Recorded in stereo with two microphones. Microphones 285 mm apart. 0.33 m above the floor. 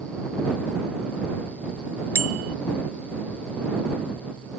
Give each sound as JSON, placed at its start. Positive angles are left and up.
{"t": 2.1, "sound": "a bicycle bell", "side_deg": -55}